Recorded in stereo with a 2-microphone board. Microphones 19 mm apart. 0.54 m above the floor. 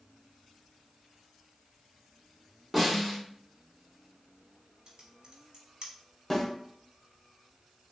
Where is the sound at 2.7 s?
10° right (ahead or behind), 1.7 m.